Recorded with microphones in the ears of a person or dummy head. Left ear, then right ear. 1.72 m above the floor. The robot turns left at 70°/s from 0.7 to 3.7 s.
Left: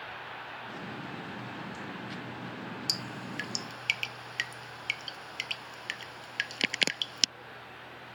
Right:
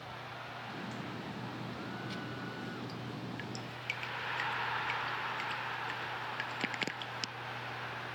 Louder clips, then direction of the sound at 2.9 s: Left 9 dB; 70° left (ahead or behind).